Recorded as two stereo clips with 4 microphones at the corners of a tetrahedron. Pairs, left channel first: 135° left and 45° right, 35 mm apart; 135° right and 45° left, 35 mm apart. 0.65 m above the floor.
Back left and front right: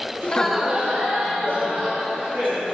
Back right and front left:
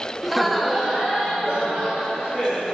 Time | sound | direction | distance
0.2 | laughter | 130° left | 0.7 m